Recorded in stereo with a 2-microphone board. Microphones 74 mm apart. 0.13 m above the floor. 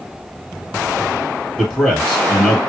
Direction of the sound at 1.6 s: Centre (ahead or behind).